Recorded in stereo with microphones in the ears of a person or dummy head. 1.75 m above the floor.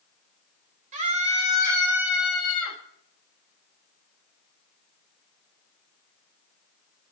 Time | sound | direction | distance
0.9 | a scream | 40° right (ahead or behind) | 3 m